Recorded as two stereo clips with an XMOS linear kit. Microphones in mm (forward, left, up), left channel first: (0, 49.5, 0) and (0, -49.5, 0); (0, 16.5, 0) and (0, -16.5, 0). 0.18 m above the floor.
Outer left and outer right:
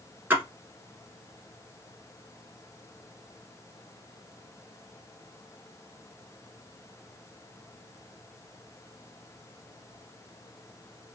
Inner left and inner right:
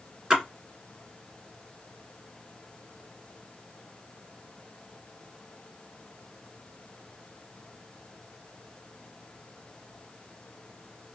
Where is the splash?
20° right (ahead or behind), 1.6 m.